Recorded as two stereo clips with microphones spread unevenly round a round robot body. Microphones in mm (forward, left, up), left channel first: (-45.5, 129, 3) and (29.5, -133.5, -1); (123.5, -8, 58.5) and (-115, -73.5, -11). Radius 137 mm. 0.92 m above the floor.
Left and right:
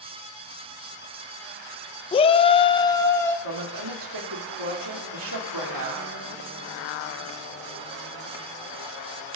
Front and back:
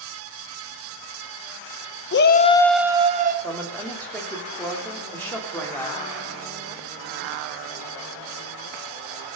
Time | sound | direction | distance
2.1 | a shout | 50° left | 0.6 m
3.4 | a woman speaking | 70° right | 3 m